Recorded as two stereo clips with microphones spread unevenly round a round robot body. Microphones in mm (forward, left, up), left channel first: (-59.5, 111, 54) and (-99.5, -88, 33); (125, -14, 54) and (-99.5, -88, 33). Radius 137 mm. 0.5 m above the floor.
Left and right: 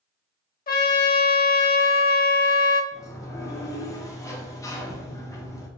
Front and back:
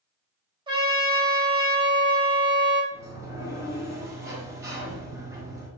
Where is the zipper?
I don't hear a zipper.